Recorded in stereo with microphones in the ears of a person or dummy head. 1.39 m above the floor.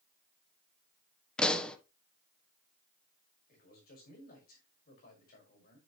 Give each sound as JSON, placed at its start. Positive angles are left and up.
{"t": 1.4, "sound": "a pop", "side_deg": 5, "distance_m": 1.0}
{"t": 3.5, "sound": "a man speaking", "side_deg": 55, "distance_m": 5.5}